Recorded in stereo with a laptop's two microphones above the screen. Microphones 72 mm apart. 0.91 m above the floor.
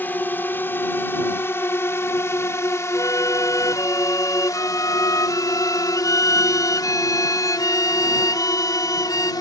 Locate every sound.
0.0 s a drone: 30° left (ahead or behind); by 9.4 s 70° left (ahead or behind)
2.9 s a violin: 50° left (ahead or behind)